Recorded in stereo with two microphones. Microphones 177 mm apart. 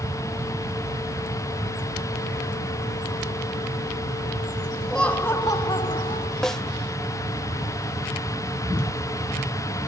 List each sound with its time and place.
4.9 s laughter: centre (ahead or behind), 1.6 m; by 6.3 s 40° left (ahead or behind), 1.7 m
6.4 s a snare drum: 5° left (ahead or behind), 0.7 m